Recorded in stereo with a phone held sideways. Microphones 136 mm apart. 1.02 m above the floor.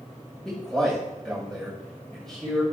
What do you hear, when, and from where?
0.5 s a man speaking: 5° left (ahead or behind), 5 m